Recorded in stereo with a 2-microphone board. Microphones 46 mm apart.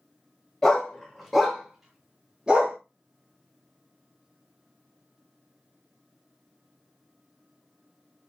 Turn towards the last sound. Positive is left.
turn(degrees=-20)  # may be behind; listen again after turning